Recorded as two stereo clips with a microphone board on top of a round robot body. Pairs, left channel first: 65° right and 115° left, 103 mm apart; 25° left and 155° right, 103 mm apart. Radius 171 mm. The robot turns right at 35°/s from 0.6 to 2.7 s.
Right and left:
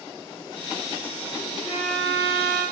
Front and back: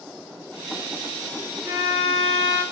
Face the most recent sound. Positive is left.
turn(degrees=-80)